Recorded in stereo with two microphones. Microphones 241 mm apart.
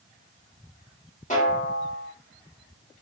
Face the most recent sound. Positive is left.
turn(degrees=30)  # may be behind; listen again after turning